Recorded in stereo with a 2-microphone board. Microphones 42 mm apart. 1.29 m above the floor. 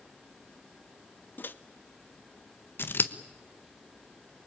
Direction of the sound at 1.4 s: 50° left (ahead or behind).